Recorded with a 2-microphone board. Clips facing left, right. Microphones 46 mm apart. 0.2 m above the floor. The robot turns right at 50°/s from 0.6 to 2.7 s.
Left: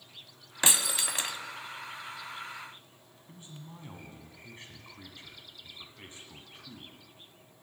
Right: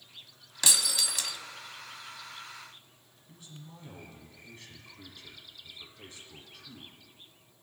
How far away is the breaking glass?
About 0.6 m.